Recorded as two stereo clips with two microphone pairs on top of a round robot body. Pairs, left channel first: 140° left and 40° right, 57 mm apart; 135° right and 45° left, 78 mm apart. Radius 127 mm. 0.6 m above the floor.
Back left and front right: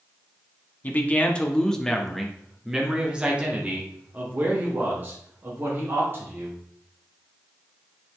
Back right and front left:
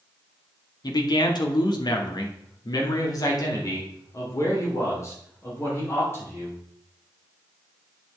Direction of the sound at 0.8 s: 160° right.